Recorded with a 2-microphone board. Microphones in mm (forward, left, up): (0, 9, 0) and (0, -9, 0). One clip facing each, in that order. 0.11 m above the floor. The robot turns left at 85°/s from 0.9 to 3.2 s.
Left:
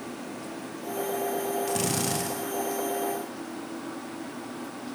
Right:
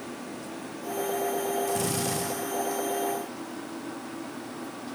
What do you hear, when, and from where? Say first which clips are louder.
1.7 s a drill: even; 145° left, 4.5 m; by 2.3 s 90° left, 4.5 m